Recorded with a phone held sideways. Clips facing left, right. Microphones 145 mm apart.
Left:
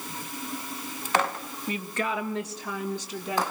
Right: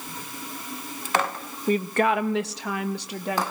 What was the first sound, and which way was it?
A woman speaking, 40° right (ahead or behind).